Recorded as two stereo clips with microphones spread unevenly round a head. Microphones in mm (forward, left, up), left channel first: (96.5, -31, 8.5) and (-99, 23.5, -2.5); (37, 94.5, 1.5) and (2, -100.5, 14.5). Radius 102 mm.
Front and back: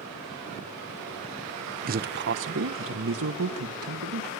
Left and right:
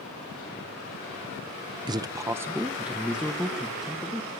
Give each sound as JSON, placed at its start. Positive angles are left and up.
{"t": 1.9, "sound": "a man speaking", "azimuth_deg": -165, "distance_m": 0.8}